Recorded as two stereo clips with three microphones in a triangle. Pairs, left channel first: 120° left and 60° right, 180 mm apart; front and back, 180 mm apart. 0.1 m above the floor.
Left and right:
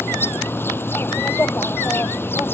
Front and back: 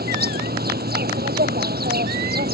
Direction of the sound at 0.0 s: 165° right.